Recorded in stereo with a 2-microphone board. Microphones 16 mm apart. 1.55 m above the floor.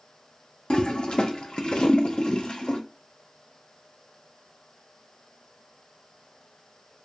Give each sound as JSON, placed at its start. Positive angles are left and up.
{"t": 0.7, "sound": "a toilet flushing", "side_deg": 70, "distance_m": 0.5}